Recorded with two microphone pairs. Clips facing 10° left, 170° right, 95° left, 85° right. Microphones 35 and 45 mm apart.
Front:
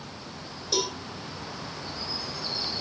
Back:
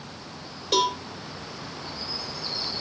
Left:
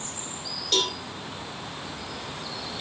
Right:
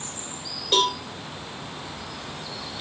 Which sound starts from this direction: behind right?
A cowbell, at 0.7 s.